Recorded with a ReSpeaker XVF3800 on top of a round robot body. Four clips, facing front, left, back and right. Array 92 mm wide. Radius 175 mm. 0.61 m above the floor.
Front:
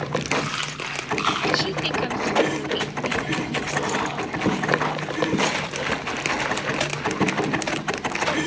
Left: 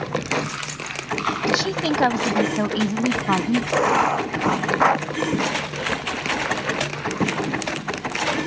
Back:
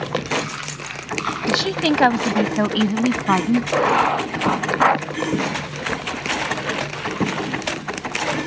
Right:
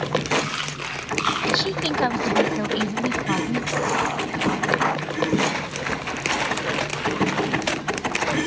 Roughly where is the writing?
Behind left.